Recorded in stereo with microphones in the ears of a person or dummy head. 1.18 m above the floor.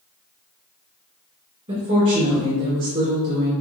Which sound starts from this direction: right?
A woman speaking, at 1.7 s.